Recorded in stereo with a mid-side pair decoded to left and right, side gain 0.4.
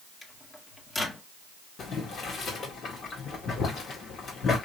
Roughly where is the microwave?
Ahead left.